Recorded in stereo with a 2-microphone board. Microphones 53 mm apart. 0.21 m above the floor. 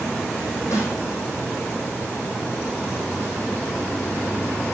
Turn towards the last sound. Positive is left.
turn(degrees=70)  # may be behind; listen again after turning